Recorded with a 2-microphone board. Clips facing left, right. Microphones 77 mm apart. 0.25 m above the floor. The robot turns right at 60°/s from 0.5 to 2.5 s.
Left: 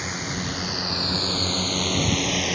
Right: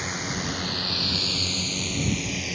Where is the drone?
Centre (ahead or behind); by 2.5 s 75° left (ahead or behind).